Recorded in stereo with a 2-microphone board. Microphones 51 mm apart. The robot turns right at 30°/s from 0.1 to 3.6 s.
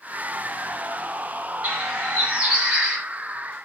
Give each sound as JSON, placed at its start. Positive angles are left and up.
{"t": 1.6, "sound": "a bird", "azimuth_deg": -50, "distance_m": 1.2}